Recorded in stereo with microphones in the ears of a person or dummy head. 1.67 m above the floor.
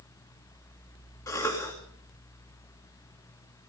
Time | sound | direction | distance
1.3 | a cough | 20° left (ahead or behind) | 3 m